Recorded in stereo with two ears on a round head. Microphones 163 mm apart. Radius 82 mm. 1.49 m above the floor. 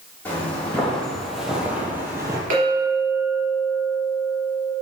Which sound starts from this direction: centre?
Footsteps, at 0.2 s.